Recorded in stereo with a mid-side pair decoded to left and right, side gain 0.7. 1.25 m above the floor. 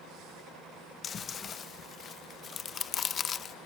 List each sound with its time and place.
1.0 s chewing: 35° left